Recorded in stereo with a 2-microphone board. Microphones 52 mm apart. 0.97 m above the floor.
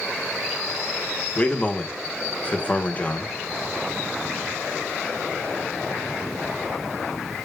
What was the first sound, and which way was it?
A man speaking, 25° left (ahead or behind).